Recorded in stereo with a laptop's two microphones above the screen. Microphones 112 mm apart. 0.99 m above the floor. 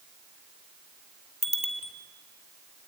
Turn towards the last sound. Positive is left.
turn(degrees=85)